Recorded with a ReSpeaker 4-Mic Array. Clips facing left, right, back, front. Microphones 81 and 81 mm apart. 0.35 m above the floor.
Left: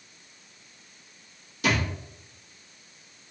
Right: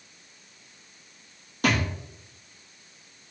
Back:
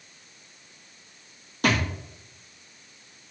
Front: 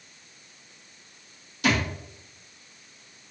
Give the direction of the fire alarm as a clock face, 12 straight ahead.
I don't hear a fire alarm.